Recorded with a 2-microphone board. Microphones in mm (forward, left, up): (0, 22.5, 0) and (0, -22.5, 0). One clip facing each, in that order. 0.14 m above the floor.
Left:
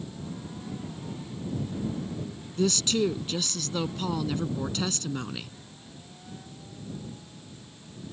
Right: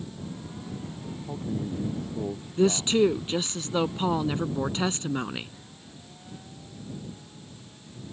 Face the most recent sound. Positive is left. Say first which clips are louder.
# right 4 dB
turn(degrees=-25)  # may be behind; listen again after turning